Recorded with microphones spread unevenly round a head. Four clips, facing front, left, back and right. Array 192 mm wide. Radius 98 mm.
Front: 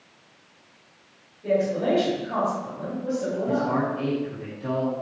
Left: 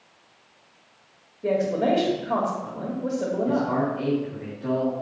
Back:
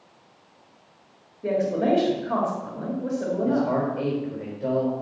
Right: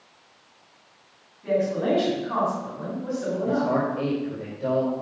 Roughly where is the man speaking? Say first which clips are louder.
Right 2 dB, back 2 dB; behind right.